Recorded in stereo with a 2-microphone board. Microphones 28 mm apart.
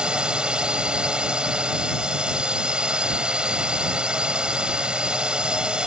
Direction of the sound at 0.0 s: 30° right (ahead or behind).